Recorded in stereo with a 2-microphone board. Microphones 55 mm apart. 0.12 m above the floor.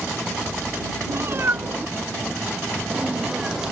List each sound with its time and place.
1.1 s a cat meowing: 45° right (ahead or behind); by 3.7 s 10° right (ahead or behind)